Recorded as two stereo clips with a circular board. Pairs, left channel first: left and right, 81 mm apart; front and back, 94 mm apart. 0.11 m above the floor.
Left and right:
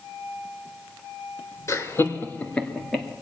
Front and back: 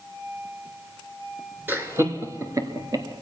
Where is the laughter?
125° left, 1.3 m; by 3.1 s straight behind, 1.4 m.